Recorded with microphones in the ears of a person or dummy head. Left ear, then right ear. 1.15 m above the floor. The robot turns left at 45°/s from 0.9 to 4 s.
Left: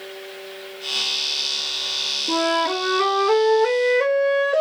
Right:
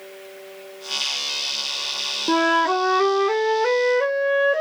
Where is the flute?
120° right, 0.5 m; by 4.6 s 160° left, 0.5 m.